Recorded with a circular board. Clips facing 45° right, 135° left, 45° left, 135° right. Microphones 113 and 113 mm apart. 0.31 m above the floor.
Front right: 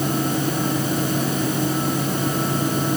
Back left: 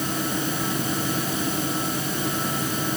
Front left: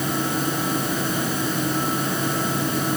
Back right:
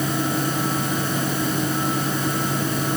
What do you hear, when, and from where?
Only background noise.